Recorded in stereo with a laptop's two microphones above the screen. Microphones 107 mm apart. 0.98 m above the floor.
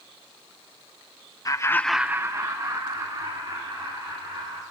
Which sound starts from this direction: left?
Laughter, at 1.4 s.